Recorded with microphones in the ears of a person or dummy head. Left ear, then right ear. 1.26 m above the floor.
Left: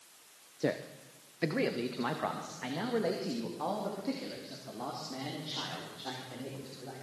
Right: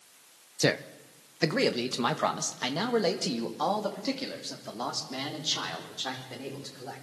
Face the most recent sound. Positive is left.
turn(degrees=-70)  # may be behind; listen again after turning